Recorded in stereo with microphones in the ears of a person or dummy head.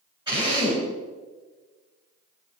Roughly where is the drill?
Right.